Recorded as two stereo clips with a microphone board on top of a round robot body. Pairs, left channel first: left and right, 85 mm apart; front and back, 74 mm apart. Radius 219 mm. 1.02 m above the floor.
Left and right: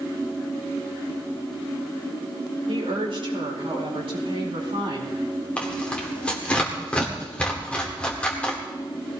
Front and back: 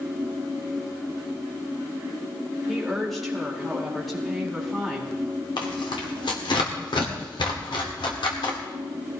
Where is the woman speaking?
85° right, 4.5 m.